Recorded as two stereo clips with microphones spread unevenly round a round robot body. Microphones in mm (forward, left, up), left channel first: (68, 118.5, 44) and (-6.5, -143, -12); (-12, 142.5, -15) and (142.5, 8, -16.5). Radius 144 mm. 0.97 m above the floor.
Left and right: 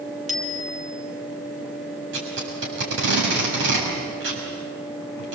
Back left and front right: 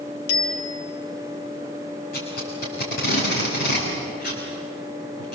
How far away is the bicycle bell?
About 2 m.